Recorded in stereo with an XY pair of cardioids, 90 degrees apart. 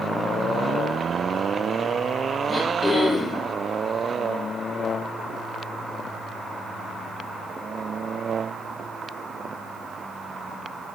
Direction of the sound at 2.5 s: 20° left.